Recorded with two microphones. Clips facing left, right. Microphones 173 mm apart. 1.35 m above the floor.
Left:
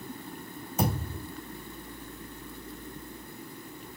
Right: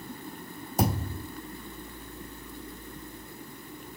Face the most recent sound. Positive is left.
turn(degrees=-35)  # may be behind; listen again after turning